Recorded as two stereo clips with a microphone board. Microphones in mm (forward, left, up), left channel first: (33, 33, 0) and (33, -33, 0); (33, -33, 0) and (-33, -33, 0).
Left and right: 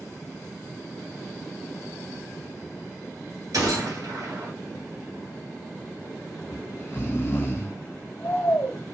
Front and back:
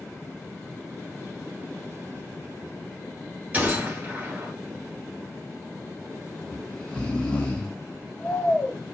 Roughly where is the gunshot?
Right.